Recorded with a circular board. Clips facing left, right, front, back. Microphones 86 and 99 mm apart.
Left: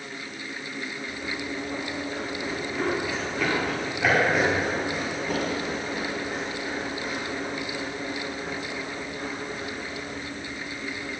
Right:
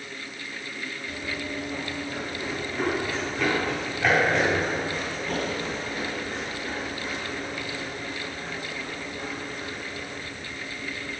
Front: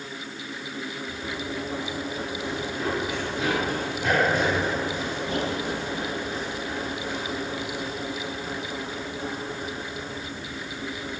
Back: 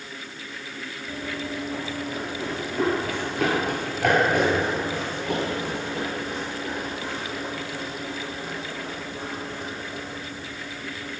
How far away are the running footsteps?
About 4 m.